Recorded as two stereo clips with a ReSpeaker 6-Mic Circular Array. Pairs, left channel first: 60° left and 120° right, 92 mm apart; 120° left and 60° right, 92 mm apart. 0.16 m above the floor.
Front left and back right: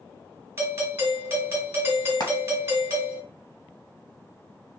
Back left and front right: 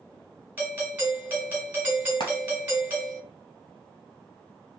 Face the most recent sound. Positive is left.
turn(degrees=100)